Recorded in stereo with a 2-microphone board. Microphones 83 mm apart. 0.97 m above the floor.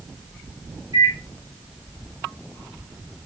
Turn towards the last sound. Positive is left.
turn(degrees=-50)  # may be behind; listen again after turning